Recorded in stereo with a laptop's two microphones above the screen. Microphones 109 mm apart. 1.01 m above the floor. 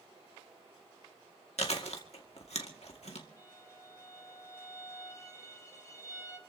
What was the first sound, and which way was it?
Chewing, 75° left (ahead or behind).